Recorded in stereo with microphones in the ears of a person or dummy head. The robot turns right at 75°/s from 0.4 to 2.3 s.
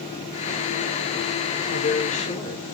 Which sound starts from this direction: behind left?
A woman speaking, at 1.7 s.